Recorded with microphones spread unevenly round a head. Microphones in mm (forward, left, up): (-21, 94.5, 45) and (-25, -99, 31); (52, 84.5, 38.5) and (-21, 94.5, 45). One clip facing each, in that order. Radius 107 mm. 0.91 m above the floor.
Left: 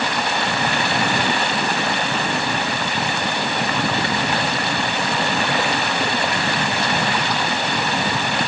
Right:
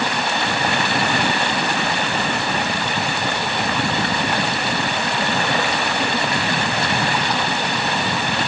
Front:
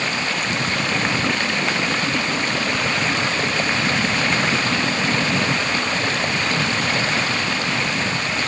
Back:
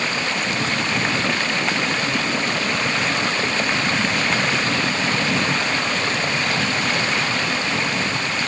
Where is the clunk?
I don't hear a clunk.